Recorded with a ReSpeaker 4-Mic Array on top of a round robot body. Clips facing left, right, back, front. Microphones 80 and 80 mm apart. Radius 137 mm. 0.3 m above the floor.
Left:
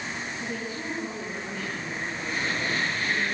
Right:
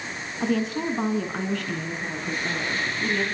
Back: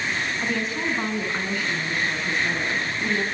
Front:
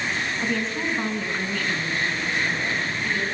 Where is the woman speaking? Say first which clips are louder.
Right 14 dB, even; 95° right, 6 m; by 3.2 s 125° right, 6.5 m.